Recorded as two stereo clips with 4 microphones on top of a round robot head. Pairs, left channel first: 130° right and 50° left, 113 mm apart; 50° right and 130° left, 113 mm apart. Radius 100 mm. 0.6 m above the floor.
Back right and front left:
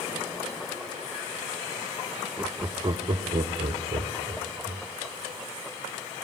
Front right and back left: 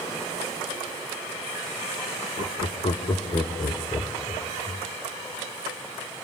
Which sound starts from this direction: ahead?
Laughter, at 2.4 s.